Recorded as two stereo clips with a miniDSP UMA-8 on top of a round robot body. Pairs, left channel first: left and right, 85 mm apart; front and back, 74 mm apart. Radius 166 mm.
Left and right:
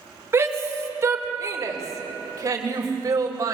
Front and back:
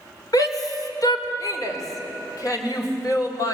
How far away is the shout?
About 3 m.